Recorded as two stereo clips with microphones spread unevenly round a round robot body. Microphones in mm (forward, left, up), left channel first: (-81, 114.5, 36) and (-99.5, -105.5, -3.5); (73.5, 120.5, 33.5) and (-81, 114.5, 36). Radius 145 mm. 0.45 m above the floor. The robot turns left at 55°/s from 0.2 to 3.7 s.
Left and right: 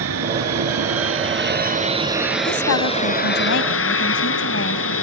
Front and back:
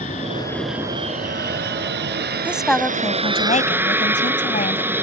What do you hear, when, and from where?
0.0 s an aircraft: 60° right; by 5.0 s 105° left
2.5 s a woman speaking: 105° left; by 4.9 s 35° left